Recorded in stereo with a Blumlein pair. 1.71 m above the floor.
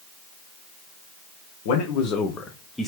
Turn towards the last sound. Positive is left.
turn(degrees=0)